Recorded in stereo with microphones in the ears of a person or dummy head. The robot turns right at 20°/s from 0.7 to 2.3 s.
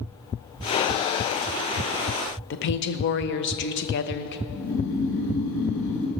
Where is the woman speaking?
55° left (ahead or behind), 0.8 m.